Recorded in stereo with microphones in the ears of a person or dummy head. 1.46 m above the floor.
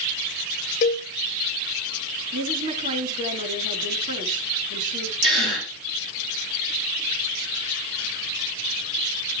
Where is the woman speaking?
55° right (ahead or behind), 3.5 m.